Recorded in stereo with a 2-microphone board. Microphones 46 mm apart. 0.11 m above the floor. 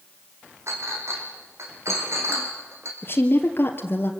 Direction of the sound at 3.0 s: 50° left (ahead or behind).